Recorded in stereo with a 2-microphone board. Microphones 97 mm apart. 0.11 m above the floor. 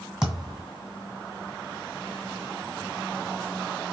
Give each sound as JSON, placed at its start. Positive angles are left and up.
{"t": 0.2, "sound": "a thud", "side_deg": -5, "distance_m": 1.5}